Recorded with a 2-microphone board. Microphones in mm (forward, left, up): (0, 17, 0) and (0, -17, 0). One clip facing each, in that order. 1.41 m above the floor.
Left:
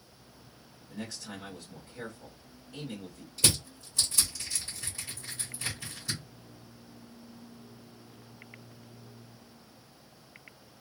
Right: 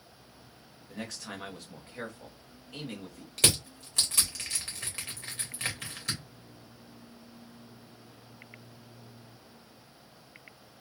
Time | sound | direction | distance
0.9 | a man speaking | 75° right (ahead or behind) | 1.4 m
3.4 | crushing | 75° right (ahead or behind) | 2 m